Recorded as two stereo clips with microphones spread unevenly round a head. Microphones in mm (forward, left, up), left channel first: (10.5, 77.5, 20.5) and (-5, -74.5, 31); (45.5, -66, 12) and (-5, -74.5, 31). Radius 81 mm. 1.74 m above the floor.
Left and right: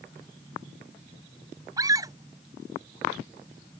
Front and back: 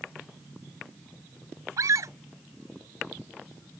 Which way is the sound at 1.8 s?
165° right.